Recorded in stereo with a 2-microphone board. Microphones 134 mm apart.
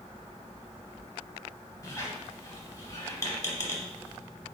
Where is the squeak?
25° left (ahead or behind), 0.9 m.